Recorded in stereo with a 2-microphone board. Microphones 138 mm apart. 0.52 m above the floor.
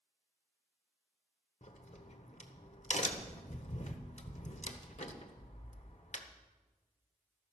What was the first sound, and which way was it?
A crack, 60° left (ahead or behind).